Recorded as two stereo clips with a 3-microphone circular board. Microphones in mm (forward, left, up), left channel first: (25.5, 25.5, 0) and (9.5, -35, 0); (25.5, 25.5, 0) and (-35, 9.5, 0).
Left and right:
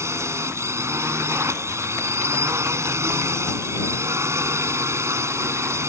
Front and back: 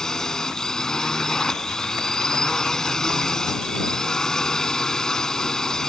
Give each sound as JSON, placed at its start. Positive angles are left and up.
{"t": 0.0, "sound": "a drone", "azimuth_deg": -65}